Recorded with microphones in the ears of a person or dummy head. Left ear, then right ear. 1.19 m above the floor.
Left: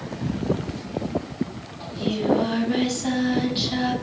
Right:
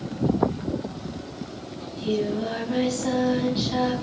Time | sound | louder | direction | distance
1.8 | singing | even | 5° left (ahead or behind) | 7 m